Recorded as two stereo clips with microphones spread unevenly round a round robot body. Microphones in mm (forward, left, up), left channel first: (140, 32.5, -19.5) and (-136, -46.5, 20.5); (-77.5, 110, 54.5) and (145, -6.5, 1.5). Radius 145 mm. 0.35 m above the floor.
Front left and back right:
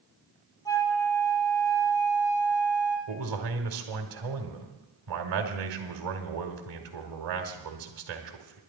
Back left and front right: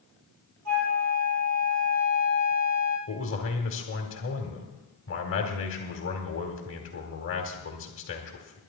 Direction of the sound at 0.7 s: 65° right.